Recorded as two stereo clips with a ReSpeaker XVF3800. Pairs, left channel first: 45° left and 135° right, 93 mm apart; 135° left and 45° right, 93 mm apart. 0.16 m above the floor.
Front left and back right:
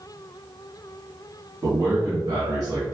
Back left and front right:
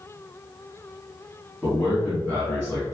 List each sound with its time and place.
1.6 s a man speaking: 145° right, 1.6 m; by 2.9 s 165° right, 1.9 m